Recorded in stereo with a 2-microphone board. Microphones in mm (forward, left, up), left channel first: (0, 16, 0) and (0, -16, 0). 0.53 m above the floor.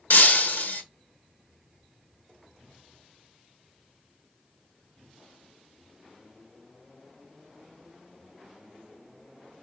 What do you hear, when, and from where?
0.1 s breaking glass: 60° left (ahead or behind), 1.1 m